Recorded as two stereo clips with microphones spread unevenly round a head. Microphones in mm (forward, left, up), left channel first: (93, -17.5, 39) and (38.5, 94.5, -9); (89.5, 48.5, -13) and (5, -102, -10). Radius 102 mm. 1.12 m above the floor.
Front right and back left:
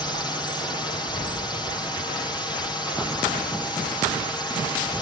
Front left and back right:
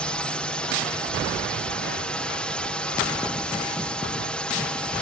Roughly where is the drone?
Ahead.